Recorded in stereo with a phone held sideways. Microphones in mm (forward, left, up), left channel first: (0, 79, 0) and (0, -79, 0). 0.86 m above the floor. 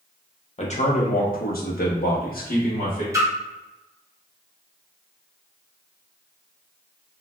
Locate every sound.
0.6 s a man speaking: 45° left (ahead or behind), 0.8 m; by 3.0 s 60° left (ahead or behind), 1.3 m
3.1 s a splash: 20° right (ahead or behind), 0.9 m